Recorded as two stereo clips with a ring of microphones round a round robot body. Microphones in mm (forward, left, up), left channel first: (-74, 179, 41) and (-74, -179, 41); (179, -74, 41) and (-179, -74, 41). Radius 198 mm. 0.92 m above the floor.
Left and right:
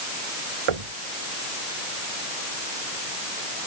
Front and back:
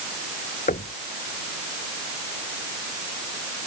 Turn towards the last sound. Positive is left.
turn(degrees=-70)